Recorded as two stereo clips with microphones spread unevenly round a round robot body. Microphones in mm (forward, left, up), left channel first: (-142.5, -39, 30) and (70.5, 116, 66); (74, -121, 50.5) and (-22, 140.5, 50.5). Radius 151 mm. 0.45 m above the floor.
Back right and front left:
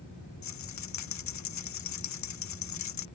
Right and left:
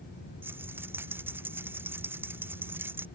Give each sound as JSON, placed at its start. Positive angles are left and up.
{"t": 0.4, "sound": "a rattle", "azimuth_deg": -165}